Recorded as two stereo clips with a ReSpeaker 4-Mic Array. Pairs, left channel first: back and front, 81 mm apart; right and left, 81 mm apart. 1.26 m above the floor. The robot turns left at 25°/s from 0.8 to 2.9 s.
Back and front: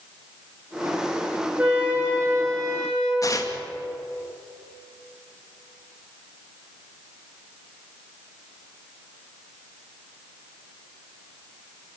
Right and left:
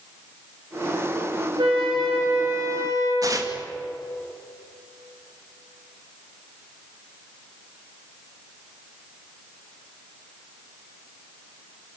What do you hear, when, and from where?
1.6 s a flute: 70° left, 7 m; by 3.1 s 40° left, 7 m
3.2 s tearing paper: 135° left, 2 m